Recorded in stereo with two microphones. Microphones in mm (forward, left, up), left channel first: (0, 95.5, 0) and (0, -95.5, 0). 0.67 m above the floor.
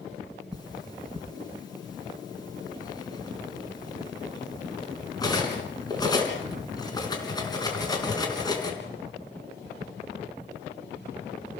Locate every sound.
0.5 s cutlery clinking: 20° left (ahead or behind), 4 m